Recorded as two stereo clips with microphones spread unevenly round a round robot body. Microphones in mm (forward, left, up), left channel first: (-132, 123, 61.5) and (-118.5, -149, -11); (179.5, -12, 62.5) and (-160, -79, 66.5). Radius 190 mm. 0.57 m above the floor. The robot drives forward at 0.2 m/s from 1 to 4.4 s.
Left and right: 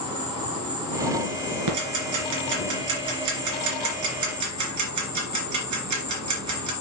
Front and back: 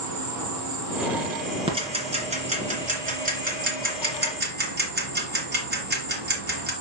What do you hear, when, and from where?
0.0 s an insect: 160° right, 4 m; by 6.8 s 165° right, 5 m
1.7 s ticking: 95° right, 2.5 m; by 6.7 s 105° right, 2.5 m